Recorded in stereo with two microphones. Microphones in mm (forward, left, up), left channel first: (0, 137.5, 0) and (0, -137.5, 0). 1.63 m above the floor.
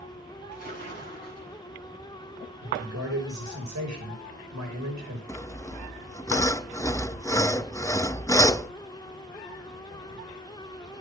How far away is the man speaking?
About 6 m.